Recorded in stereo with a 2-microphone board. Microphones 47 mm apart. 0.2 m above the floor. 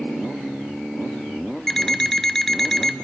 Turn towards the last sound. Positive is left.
turn(degrees=10)  # may be behind; listen again after turning